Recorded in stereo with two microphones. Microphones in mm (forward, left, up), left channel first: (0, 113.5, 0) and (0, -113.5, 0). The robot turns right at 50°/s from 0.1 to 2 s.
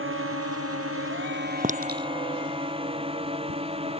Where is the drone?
65° right (ahead or behind); by 4.0 s 25° right (ahead or behind).